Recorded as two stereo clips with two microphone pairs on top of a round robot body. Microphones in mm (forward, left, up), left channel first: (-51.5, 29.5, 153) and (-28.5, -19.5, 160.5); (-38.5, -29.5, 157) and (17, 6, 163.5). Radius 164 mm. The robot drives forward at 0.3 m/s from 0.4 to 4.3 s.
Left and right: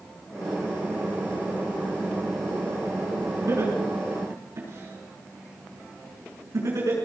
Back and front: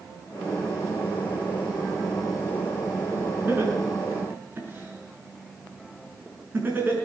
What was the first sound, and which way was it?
Laughter, 25° right.